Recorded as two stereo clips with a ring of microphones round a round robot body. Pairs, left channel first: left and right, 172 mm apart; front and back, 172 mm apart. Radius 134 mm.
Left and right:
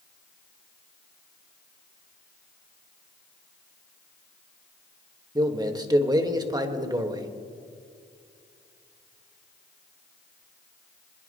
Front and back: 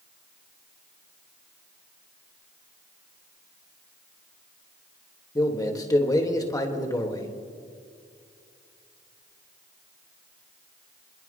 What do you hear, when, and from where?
5.3 s a man speaking: 45° right, 1.6 m